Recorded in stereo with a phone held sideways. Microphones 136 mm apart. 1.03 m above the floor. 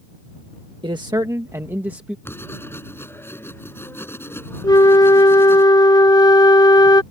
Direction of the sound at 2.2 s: 15° left (ahead or behind).